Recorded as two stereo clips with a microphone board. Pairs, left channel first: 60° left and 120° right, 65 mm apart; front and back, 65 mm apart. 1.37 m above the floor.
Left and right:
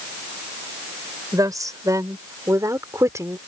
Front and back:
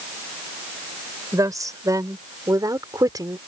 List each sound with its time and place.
1.3 s a woman speaking: 150° right; by 3.4 s 165° right